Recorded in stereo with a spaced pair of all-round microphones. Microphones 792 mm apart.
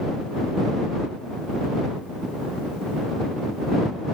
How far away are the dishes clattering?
No dishes clattering in this recording.